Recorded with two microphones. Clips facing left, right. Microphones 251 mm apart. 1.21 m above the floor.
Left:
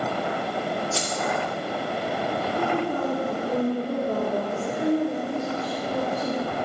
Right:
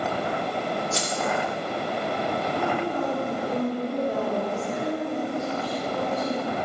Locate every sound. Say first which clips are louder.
0.9 s keys jangling: even; 20° right (ahead or behind), 1.5 m
2.5 s a woman speaking: left 1 dB; 35° left (ahead or behind), 2.5 m